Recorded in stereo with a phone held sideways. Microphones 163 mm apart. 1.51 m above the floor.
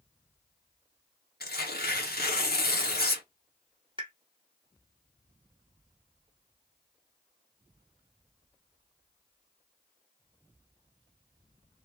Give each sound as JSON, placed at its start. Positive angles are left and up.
{"t": 1.4, "sound": "tearing paper", "side_deg": 70, "distance_m": 1.0}
{"t": 4.0, "sound": "a pop", "side_deg": -30, "distance_m": 0.9}